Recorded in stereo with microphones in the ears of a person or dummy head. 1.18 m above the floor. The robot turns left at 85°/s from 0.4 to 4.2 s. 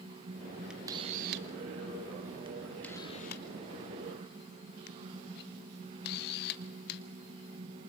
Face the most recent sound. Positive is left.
turn(degrees=55)  # may be behind; listen again after turning